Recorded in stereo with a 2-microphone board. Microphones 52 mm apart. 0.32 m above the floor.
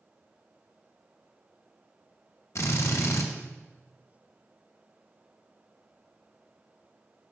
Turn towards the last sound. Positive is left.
turn(degrees=65)  # may be behind; listen again after turning